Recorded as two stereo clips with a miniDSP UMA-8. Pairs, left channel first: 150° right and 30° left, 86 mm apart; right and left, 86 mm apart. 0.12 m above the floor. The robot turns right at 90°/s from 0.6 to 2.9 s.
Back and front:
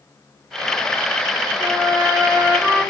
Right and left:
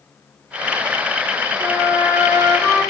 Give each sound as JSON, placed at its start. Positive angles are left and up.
{"t": 1.6, "sound": "a trumpet", "azimuth_deg": 55, "distance_m": 2.0}